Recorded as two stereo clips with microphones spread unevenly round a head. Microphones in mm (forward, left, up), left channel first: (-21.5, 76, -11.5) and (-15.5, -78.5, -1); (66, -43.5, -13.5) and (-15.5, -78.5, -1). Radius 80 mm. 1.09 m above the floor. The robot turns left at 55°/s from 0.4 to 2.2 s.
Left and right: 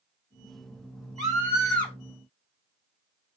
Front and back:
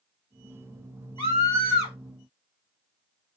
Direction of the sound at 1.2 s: 155° right.